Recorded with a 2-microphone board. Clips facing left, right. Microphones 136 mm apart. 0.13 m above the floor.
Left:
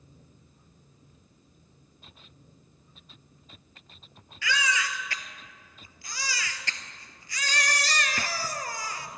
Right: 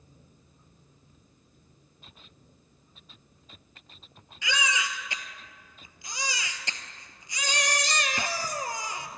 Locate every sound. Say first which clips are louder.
4.4 s a baby crying: left 1 dB; 20° right (ahead or behind), 1.0 m